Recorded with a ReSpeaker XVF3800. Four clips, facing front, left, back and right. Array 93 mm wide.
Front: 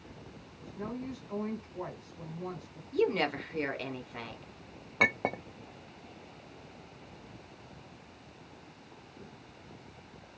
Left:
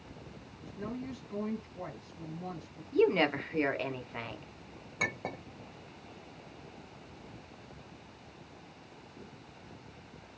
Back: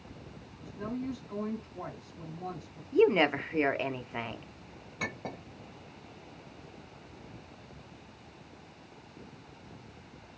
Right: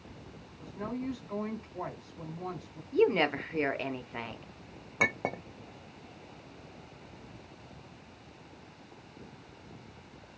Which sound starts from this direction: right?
A woman speaking, at 0.6 s.